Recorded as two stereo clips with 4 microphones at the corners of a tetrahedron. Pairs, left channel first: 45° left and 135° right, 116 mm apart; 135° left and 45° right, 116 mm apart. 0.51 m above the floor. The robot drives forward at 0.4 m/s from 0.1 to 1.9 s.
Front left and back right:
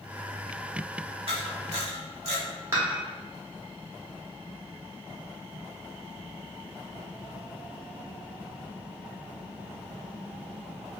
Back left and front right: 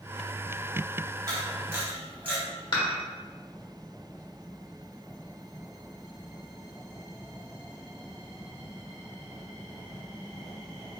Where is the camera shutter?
105° right, 1.0 m; by 2.4 s 115° right, 1.0 m.